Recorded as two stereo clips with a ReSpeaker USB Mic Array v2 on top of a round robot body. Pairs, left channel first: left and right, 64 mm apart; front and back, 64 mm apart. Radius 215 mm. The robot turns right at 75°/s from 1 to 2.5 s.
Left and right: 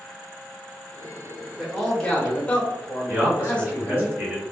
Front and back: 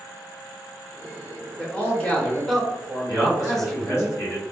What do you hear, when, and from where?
1.6 s a man speaking: 5° left, 1.1 m; by 4.1 s 70° left, 1.1 m
3.1 s a man speaking: 30° right, 1.7 m